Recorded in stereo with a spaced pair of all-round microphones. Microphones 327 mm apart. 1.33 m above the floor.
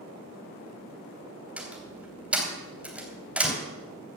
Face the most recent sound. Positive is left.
turn(degrees=-5)  # may be behind; listen again after turning